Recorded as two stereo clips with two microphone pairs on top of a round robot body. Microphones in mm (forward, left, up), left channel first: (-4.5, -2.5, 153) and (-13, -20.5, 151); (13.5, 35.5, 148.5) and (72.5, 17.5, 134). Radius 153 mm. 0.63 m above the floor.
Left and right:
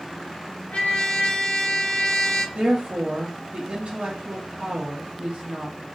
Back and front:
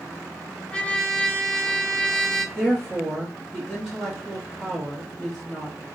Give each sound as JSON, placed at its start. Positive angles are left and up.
{"t": 0.7, "sound": "a trumpet", "azimuth_deg": 80, "distance_m": 0.8}
{"t": 2.5, "sound": "a woman speaking", "azimuth_deg": -100, "distance_m": 1.0}